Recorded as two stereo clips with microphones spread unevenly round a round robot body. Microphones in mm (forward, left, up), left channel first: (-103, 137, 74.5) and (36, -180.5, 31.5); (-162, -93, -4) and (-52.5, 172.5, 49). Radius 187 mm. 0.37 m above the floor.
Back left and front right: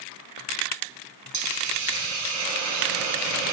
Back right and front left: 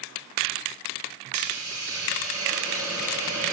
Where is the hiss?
20° right, 2 m.